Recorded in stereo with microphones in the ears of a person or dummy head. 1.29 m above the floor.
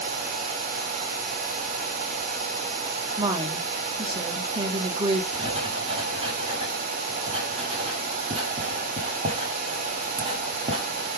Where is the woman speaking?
30° right (ahead or behind), 1.0 m.